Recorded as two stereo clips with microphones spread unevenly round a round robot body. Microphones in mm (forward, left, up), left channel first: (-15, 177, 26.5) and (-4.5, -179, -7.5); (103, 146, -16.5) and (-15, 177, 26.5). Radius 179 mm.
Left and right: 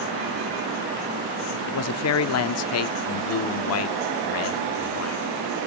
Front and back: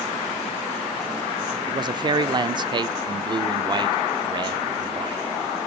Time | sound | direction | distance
1.7 | a man speaking | 105° left | 0.8 m